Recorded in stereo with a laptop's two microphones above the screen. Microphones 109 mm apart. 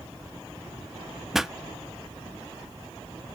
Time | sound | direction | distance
1.3 | a pop | 5° right (ahead or behind) | 0.6 m